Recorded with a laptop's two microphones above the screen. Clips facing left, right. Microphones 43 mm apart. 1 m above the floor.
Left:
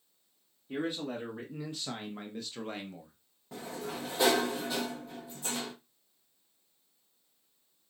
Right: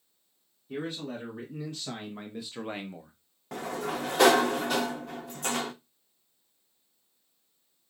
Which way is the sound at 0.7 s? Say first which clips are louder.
Left 1 dB; 20° left (ahead or behind).